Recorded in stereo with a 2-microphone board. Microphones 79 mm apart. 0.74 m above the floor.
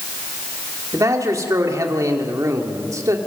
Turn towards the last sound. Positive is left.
turn(degrees=-45)  # may be behind; listen again after turning